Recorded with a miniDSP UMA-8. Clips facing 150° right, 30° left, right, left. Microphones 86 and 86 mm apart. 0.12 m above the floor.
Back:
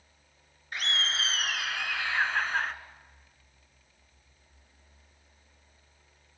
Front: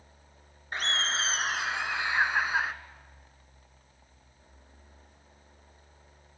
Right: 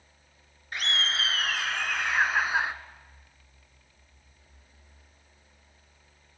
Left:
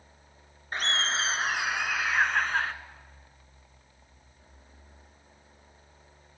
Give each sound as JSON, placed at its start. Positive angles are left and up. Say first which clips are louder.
{"t": 0.7, "sound": "laughter", "louder": "front 2 dB, left 2 dB", "azimuth_deg": 65, "distance_m": 1.4}